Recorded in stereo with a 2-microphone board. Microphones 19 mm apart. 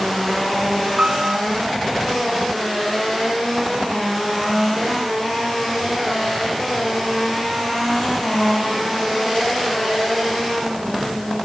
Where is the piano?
85° right.